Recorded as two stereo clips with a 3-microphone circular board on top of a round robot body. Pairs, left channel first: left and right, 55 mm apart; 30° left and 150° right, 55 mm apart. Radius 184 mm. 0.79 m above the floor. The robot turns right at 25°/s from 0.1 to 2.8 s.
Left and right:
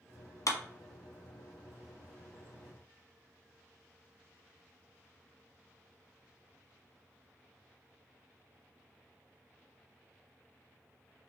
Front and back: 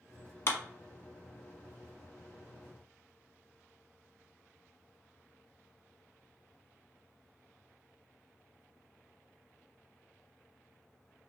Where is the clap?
75° left, 1.0 m; by 0.6 s 80° left, 1.0 m.